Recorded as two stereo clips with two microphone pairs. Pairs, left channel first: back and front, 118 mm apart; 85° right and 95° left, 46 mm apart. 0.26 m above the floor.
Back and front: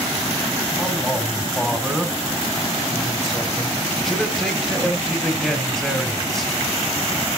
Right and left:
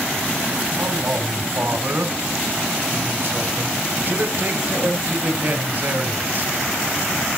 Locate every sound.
0.8 s a man speaking: 85° left, 1.3 m